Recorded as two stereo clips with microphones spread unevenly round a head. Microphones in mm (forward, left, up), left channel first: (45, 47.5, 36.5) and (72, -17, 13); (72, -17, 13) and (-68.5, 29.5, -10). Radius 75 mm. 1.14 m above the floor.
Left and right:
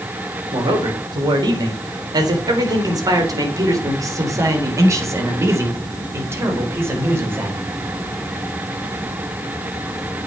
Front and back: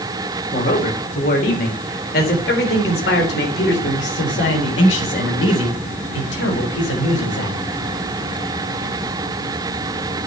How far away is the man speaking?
About 3.5 m.